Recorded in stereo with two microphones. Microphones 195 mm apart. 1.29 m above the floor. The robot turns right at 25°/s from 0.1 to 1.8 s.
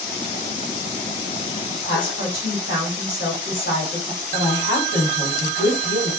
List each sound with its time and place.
1.8 s a woman speaking: 75° left (ahead or behind), 1.7 m
4.3 s a woman speaking: 75° left (ahead or behind), 1.7 m